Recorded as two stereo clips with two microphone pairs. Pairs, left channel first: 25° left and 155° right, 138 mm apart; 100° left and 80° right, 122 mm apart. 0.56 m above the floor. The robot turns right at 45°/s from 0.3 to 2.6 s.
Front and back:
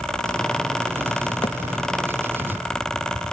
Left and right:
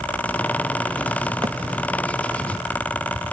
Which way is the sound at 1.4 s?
30° right.